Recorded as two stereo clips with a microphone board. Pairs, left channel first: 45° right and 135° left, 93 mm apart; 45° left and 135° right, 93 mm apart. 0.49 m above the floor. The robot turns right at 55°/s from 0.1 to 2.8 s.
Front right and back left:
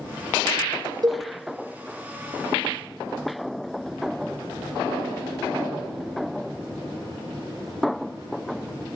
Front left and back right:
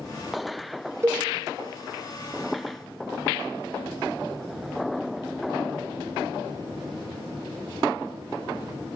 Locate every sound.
1.0 s a cowbell: 170° left, 1.6 m; by 1.2 s 175° left, 1.6 m